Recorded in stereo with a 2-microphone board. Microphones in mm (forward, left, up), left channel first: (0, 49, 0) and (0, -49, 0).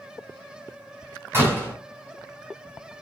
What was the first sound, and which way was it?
A door slam, 25° right (ahead or behind).